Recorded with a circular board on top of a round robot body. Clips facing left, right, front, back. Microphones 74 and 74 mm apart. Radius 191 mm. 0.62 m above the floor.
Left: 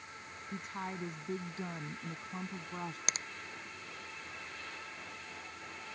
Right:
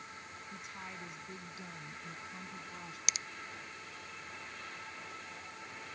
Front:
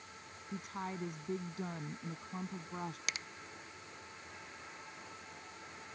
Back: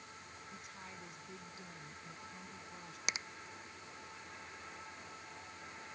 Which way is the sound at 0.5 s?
40° left.